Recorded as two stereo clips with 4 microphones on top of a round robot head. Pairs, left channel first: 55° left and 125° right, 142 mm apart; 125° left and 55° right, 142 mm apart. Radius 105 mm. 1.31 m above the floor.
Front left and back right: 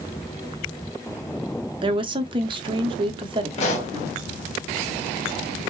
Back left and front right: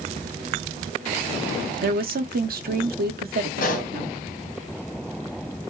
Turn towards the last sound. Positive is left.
turn(degrees=95)